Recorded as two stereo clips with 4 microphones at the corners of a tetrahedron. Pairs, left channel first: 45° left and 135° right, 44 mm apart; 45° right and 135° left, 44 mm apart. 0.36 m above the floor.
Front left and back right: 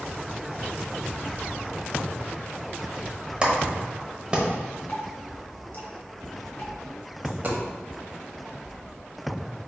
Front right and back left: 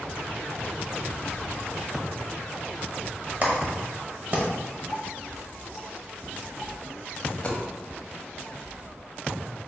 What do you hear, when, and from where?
3.4 s a clap: 165° left, 1.0 m
4.9 s dripping: 65° left, 1.1 m
7.2 s a dropped coin: 95° right, 0.9 m